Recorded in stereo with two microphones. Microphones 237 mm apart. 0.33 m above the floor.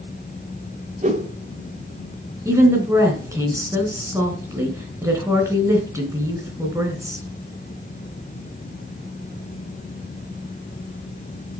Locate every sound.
1.0 s a whoosh: 30° right (ahead or behind), 1.7 m
2.5 s a woman speaking: 10° right (ahead or behind), 3.5 m